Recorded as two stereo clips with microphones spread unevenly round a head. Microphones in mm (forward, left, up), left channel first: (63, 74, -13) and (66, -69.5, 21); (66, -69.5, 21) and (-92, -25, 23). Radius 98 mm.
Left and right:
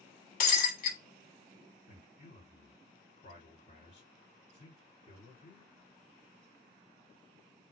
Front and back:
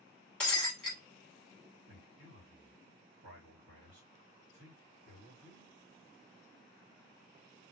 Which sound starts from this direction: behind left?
A man speaking, at 1.9 s.